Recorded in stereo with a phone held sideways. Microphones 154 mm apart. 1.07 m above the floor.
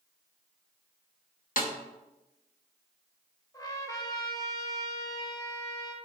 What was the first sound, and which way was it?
A snare drum, 65° left (ahead or behind).